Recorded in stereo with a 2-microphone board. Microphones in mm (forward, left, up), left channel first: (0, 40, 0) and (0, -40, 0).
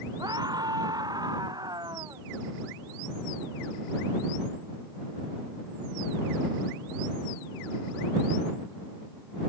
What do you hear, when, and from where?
0.2 s a scream: 55° right (ahead or behind)